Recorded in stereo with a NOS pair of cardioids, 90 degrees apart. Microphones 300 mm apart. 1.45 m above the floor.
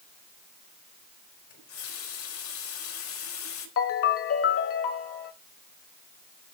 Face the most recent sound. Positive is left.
turn(degrees=50)